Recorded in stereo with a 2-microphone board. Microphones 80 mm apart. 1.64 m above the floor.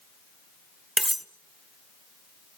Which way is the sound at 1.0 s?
Centre (ahead or behind).